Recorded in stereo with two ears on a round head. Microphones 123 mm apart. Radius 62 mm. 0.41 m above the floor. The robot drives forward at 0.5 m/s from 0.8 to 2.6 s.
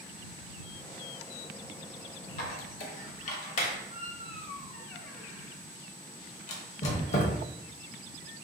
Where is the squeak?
60° left (ahead or behind), 0.7 m; by 7.4 s 55° left (ahead or behind), 0.7 m.